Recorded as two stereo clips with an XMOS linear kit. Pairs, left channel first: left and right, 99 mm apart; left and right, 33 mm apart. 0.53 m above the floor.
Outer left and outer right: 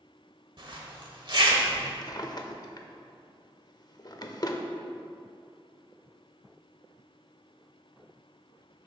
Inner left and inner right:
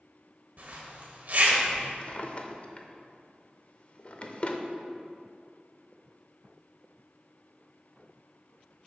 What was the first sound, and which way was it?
A zipper, 50° right (ahead or behind).